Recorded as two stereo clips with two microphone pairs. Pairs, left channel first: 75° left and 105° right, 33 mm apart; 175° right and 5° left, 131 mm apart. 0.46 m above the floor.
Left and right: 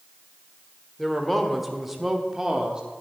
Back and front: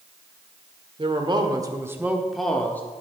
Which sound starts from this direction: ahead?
A man speaking, at 1.0 s.